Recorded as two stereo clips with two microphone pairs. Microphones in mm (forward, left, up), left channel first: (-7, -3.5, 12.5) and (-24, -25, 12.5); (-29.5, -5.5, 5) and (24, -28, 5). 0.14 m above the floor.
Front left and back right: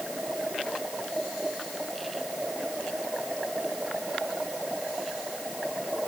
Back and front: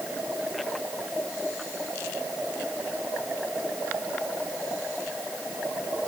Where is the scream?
No scream in this recording.